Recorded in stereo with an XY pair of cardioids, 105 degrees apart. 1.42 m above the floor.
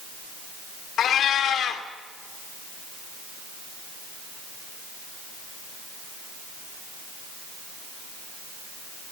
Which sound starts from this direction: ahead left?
A cat meowing, at 1.0 s.